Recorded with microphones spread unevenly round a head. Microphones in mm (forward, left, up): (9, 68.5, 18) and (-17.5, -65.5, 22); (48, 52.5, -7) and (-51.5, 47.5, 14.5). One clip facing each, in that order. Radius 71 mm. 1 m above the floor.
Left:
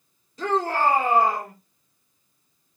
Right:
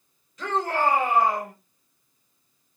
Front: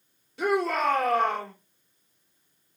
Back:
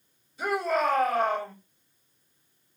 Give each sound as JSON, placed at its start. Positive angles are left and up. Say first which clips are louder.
{"t": 0.4, "sound": "a shout", "louder": "left 2 dB, front 1 dB", "azimuth_deg": 20, "distance_m": 4.0}